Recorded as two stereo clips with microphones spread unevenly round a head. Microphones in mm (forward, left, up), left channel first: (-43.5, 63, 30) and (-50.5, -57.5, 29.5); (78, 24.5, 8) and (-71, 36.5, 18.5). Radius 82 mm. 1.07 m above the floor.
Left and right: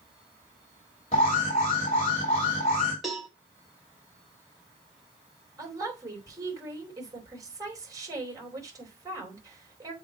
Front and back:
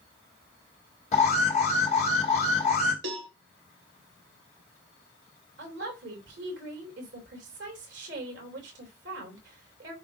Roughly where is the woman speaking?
Behind right.